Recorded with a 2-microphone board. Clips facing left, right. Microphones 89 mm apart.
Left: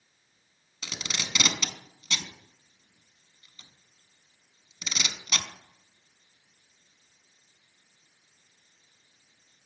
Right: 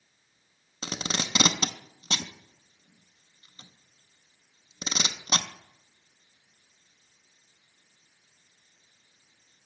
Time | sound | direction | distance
0.8 | tape being pulled | 40° right (ahead or behind) | 0.5 m